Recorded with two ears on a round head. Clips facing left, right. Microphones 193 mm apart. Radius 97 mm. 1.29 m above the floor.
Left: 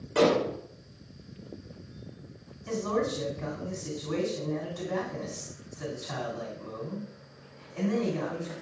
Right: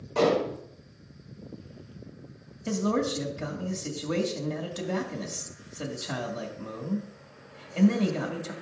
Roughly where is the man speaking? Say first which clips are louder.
Right 2 dB; right.